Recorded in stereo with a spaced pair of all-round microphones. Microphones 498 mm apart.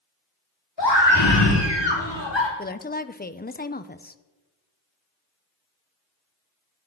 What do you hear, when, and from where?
0.8 s a scream: 55° left (ahead or behind), 4 m; by 2.5 s 60° left (ahead or behind), 3 m
2.6 s a woman speaking: 20° left (ahead or behind), 0.5 m